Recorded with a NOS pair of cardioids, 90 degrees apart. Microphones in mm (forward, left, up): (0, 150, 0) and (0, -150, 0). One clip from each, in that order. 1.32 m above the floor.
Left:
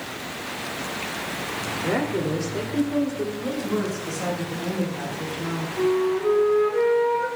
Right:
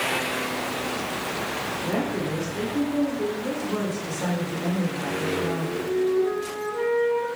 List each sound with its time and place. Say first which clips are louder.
1.8 s a woman speaking: left 5 dB; 50° left, 3.5 m
3.4 s a woman speaking: left 1 dB; 15° left, 4.5 m
5.8 s a flute: left 2 dB; 50° left, 4 m